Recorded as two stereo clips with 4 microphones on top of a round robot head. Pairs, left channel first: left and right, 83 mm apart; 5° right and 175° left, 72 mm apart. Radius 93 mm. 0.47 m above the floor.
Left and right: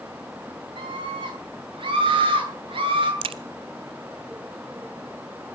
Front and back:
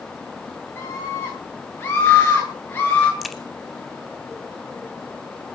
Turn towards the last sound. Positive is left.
turn(degrees=-100)